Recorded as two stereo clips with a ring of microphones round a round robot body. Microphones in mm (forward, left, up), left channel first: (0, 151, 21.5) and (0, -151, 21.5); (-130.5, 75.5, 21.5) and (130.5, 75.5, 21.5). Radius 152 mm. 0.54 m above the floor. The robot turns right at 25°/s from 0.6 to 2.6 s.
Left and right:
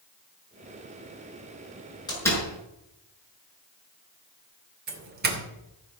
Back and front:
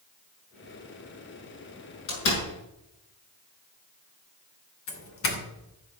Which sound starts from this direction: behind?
A door slam, at 2.1 s.